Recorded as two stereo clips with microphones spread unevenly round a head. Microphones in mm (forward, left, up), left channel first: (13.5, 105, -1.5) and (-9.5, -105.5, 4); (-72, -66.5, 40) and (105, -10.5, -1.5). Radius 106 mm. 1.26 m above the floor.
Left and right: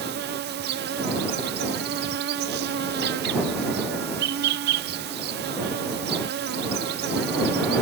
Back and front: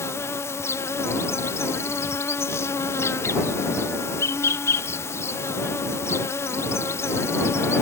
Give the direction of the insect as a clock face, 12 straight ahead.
3 o'clock.